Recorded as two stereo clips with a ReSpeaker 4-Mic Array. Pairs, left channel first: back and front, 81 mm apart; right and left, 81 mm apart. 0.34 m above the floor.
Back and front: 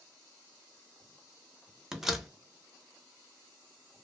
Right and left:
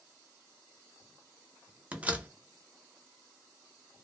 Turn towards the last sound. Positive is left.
turn(degrees=80)